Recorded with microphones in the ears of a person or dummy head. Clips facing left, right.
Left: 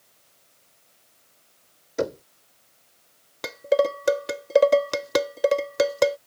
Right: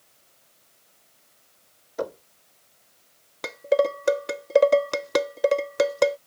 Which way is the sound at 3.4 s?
5° left (ahead or behind).